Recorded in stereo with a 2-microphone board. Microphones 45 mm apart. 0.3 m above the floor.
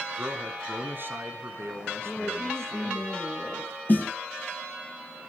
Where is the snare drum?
45° left (ahead or behind), 1.9 m.